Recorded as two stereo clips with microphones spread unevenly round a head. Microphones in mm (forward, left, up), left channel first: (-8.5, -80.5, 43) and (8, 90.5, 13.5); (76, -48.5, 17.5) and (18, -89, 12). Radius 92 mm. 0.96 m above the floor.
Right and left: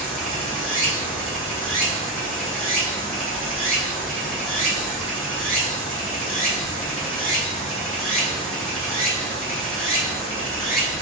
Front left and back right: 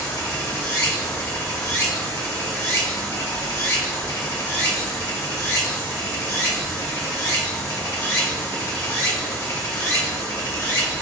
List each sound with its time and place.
0.0 s running water: 10° right, 2.5 m